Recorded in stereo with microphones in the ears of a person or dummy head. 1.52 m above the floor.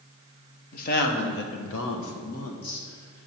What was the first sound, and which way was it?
A woman speaking, 45° left (ahead or behind).